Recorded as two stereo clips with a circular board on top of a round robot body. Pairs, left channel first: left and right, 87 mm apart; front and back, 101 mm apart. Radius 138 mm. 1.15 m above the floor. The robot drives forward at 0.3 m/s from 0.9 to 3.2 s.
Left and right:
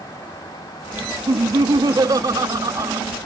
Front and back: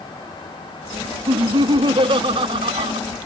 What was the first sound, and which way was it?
Laughter, 135° right.